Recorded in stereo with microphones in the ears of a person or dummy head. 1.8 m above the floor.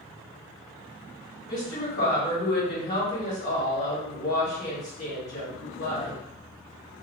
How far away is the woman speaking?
About 1.5 m.